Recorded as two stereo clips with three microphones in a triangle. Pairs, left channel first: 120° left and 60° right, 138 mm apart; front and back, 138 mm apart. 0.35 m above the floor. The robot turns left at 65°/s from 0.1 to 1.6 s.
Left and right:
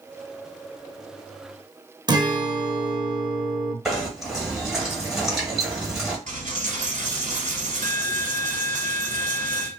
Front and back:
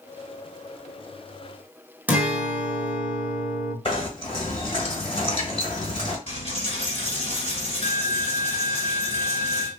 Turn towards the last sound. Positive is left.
turn(degrees=-45)